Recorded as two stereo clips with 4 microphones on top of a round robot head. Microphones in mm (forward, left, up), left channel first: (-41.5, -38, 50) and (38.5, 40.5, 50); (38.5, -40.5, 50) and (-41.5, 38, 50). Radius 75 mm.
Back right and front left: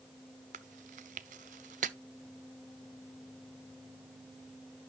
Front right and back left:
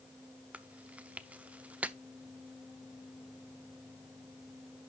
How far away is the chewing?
About 0.6 m.